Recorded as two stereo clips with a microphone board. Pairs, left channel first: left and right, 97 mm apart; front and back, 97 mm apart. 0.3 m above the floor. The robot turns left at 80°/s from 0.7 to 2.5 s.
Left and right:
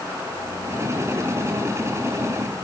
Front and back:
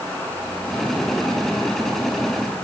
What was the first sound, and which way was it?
Only background noise.